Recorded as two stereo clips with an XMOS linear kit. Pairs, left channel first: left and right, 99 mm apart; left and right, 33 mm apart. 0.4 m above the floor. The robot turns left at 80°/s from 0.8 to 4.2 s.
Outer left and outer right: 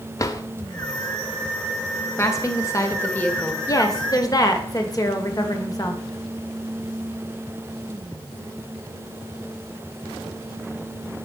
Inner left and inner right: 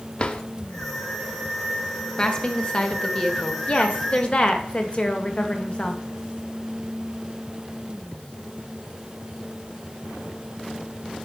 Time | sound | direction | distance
0.2 | a drawer | 30° left (ahead or behind) | 0.6 m
2.2 | a woman speaking | 120° left | 1.0 m
3.7 | a woman speaking | 120° left | 1.0 m